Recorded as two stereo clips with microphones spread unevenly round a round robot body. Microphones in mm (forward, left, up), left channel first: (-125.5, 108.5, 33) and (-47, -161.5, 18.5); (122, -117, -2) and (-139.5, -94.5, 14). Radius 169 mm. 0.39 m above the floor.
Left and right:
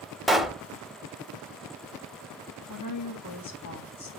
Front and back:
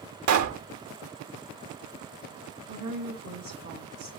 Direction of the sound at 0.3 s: 165° right.